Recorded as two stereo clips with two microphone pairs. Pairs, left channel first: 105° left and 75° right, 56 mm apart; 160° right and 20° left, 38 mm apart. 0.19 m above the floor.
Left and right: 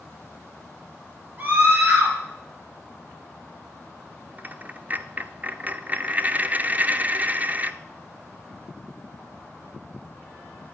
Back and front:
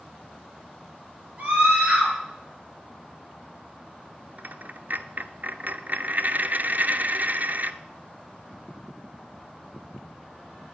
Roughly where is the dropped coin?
Ahead.